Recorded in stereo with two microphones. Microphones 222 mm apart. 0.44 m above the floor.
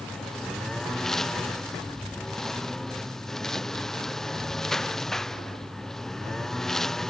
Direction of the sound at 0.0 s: Centre (ahead or behind).